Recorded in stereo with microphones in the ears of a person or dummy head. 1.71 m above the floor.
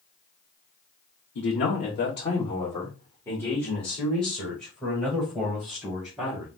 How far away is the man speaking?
About 0.9 m.